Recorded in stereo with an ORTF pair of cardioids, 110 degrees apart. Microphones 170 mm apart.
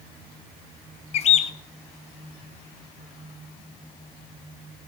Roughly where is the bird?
Ahead left.